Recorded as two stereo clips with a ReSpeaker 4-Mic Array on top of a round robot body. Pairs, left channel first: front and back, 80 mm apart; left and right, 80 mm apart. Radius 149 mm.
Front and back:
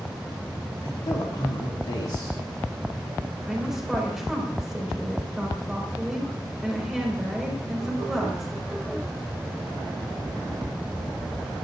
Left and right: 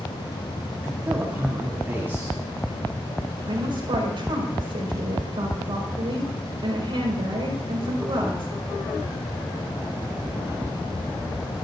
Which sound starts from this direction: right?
A woman speaking, at 3.5 s.